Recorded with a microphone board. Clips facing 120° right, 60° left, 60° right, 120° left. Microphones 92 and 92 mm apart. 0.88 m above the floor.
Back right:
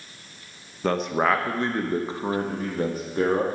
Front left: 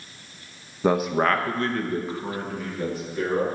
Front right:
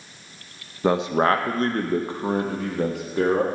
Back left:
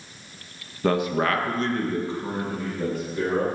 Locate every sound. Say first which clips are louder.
0.8 s a man speaking: front left 1 dB, front right 3 dB; straight ahead, 0.6 m; by 3.5 s 80° right, 1.5 m